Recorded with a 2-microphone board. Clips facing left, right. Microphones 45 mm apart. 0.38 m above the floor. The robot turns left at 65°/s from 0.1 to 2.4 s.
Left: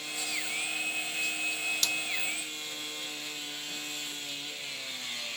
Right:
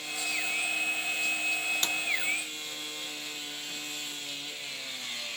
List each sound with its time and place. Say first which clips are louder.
1.8 s a snare drum: right 1 dB; 30° right (ahead or behind); by 2.0 s 20° right (ahead or behind)